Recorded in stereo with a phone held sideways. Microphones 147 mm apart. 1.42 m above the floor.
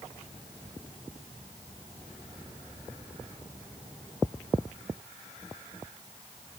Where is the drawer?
I don't hear a drawer.